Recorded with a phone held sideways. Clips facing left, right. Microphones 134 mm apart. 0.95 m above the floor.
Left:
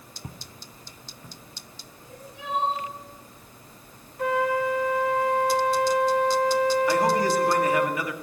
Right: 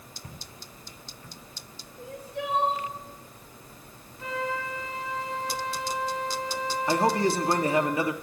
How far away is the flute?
About 2 m.